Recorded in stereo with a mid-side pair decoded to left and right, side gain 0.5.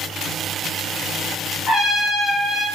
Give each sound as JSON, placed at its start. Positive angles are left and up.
{"t": 1.7, "sound": "a trumpet", "azimuth_deg": 70, "distance_m": 2.0}